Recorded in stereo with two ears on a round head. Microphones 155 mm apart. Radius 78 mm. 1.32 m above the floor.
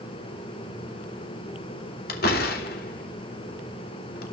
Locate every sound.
2.1 s a door slam: 65° left (ahead or behind), 2.5 m